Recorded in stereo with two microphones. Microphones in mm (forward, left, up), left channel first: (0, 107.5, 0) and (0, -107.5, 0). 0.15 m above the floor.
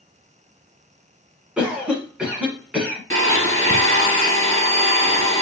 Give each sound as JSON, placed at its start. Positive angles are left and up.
{"t": 1.6, "sound": "a cough", "side_deg": -5, "distance_m": 1.1}
{"t": 3.1, "sound": "a blender", "side_deg": 15, "distance_m": 1.5}